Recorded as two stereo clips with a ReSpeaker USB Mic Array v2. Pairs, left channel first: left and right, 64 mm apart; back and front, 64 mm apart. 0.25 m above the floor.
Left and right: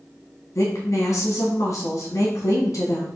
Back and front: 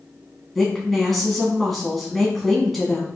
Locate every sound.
0.6 s a woman speaking: 95° left, 1.8 m